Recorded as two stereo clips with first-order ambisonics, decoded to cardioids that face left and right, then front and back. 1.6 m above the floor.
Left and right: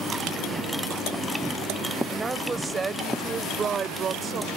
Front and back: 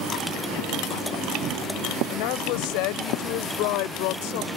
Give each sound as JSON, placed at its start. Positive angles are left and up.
{"t": 2.1, "sound": "a woman speaking", "azimuth_deg": -10}